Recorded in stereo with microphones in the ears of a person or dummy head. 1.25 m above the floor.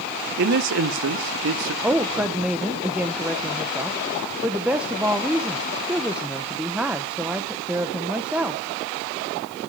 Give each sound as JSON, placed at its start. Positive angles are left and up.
{"t": 0.4, "sound": "a man speaking", "side_deg": -60, "distance_m": 1.4}
{"t": 1.8, "sound": "a woman speaking", "side_deg": -5, "distance_m": 0.9}